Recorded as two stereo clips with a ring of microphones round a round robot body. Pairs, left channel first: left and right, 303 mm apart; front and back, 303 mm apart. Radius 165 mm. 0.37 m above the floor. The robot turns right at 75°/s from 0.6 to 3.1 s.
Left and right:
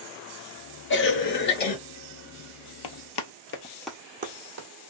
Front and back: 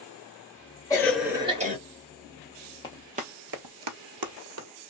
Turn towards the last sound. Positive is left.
turn(degrees=-140)